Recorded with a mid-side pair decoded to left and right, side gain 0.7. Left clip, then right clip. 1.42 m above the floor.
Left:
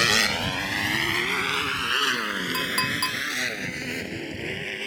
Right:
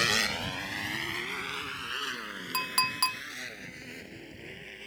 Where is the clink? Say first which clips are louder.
Even; 5° right.